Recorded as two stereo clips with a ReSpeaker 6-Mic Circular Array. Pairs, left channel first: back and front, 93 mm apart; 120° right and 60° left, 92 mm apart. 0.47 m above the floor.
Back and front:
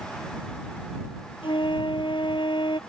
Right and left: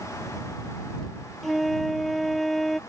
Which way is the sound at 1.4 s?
150° left.